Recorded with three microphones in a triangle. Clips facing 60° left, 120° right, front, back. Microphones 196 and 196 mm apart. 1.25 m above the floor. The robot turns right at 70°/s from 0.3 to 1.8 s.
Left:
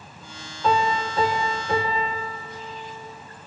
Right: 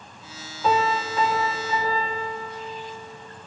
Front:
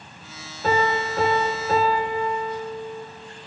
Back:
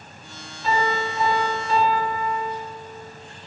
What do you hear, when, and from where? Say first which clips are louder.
0.6 s a piano: even, front 2 dB; 35° right, 5 m; by 3.1 s 45° left, 5 m